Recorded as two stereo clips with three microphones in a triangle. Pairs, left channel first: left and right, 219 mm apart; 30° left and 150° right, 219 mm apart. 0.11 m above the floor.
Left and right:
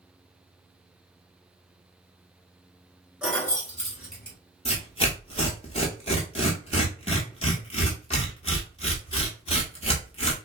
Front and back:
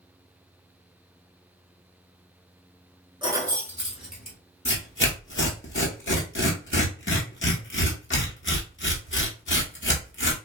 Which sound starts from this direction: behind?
Keys jangling, at 3.2 s.